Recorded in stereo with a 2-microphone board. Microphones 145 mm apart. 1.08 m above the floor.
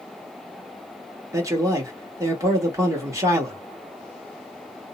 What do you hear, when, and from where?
1.3 s a man speaking: 20° right (ahead or behind), 1.3 m